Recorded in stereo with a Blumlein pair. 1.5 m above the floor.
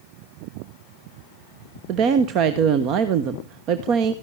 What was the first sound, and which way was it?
A woman speaking, 35° right.